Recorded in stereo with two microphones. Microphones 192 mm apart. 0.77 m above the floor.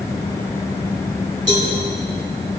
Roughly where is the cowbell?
Right.